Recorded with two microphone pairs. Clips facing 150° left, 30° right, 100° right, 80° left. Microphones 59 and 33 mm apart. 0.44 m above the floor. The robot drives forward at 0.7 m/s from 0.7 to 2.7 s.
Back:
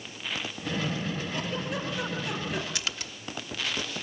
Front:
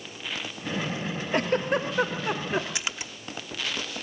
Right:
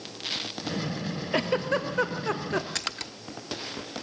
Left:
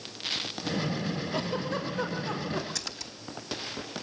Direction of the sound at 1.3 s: 65° right.